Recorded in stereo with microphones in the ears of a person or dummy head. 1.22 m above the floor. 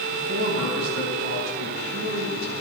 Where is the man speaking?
85° right, 4.5 m.